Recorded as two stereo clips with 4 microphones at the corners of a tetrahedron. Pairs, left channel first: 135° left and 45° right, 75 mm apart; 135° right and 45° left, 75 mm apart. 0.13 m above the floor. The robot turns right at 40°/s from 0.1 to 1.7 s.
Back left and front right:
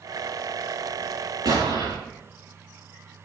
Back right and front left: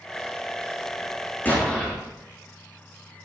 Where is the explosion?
70° right, 8.5 m; by 2.0 s 60° right, 8.5 m.